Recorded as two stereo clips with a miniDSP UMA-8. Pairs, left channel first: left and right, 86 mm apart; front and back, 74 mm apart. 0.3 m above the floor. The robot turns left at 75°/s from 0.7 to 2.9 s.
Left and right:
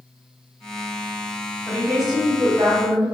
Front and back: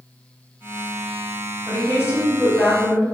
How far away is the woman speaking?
About 1.4 m.